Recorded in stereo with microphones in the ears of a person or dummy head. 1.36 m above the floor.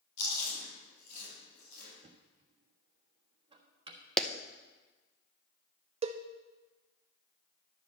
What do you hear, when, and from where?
0.2 s chewing: 60° left (ahead or behind), 6 m
2.0 s knocking: 35° right (ahead or behind), 1.3 m
4.2 s a clap: 5° left (ahead or behind), 0.6 m
6.0 s a cowbell: 35° right (ahead or behind), 0.5 m